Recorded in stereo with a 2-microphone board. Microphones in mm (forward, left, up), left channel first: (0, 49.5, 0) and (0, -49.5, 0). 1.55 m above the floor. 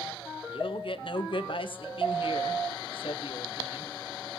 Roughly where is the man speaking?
Left.